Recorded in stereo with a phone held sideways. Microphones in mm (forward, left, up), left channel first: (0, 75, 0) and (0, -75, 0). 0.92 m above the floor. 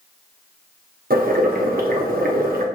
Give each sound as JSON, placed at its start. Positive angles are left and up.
{"t": 1.1, "sound": "boiling", "side_deg": -80, "distance_m": 0.8}